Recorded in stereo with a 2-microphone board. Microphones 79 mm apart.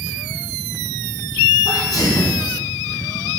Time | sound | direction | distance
1.6 | a sneeze | 50° left (ahead or behind) | 2 m